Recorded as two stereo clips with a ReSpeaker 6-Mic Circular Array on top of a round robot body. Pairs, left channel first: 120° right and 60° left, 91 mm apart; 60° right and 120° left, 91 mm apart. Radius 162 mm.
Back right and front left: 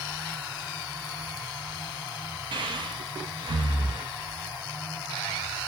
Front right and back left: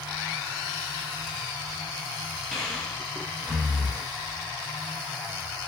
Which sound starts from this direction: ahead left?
Breathing, at 2.5 s.